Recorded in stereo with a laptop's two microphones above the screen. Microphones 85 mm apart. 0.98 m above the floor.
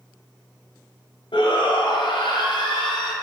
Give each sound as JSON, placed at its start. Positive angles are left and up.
{"t": 1.3, "sound": "a shout", "side_deg": 70, "distance_m": 0.5}